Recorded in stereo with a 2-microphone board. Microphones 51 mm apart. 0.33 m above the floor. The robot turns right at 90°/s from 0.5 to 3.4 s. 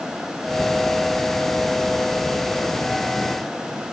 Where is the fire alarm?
No fire alarm in this recording.